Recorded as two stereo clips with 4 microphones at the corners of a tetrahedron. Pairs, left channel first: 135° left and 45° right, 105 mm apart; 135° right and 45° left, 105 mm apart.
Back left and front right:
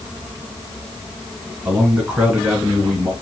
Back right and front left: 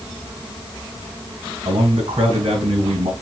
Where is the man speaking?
30° left, 3.5 m.